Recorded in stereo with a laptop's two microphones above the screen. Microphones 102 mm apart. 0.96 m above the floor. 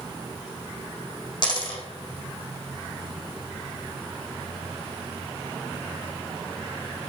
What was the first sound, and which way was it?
A dropped coin, 45° left (ahead or behind).